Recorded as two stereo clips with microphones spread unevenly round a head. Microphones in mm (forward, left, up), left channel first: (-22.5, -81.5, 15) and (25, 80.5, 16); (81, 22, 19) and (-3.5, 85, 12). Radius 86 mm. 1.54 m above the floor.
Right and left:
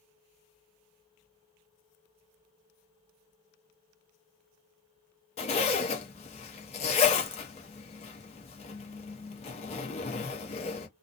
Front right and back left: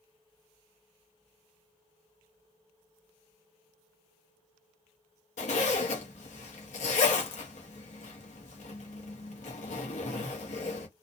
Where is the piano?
No piano in this recording.